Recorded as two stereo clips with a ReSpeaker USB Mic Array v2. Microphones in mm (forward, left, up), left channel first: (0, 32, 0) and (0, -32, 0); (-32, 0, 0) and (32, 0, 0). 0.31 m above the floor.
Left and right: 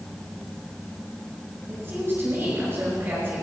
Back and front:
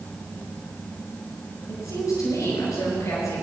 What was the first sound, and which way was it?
A woman speaking, 145° right.